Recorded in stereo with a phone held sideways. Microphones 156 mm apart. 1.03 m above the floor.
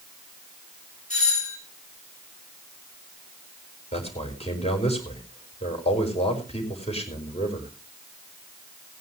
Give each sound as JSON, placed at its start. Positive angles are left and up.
{"t": 1.1, "sound": "a doorbell", "side_deg": 50, "distance_m": 5.0}
{"t": 3.9, "sound": "a man speaking", "side_deg": 40, "distance_m": 4.5}